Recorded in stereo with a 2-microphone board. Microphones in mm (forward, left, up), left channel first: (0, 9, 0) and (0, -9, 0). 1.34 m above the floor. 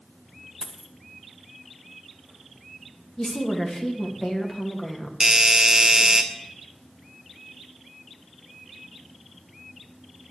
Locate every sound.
0.6 s a dropped coin: 35° left (ahead or behind), 1.8 m
3.2 s a woman speaking: 35° left (ahead or behind), 2.5 m
5.2 s a doorbell: 30° right (ahead or behind), 1.6 m